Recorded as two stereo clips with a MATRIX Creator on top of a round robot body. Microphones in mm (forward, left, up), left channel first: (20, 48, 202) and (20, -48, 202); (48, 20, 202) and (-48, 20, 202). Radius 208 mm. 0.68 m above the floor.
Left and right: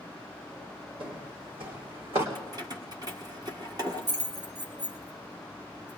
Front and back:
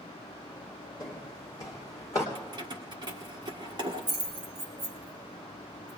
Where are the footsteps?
55° right, 2.5 m; by 2.2 s 60° right, 4 m.